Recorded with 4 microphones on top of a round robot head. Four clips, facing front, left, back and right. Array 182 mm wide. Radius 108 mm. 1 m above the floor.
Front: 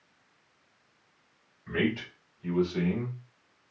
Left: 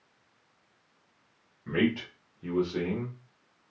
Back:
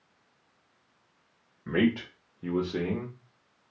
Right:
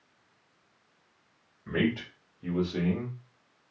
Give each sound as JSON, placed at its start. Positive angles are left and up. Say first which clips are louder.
{"t": 1.7, "sound": "a man speaking", "louder": "left 1 dB, back 4 dB", "azimuth_deg": 165, "distance_m": 1.9}